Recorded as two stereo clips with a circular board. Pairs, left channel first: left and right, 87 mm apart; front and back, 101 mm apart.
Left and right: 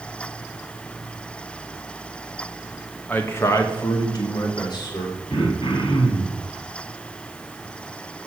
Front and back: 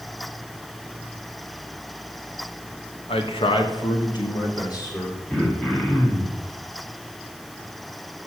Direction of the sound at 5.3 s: 75° left.